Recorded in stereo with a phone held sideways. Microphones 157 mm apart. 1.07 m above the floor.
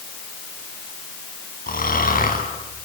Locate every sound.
1.7 s snoring: 70° left (ahead or behind), 5.5 m